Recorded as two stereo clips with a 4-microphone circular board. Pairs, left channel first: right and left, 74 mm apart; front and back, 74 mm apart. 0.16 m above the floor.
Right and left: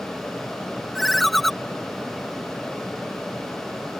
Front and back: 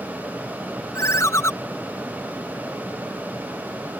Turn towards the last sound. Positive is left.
turn(degrees=-5)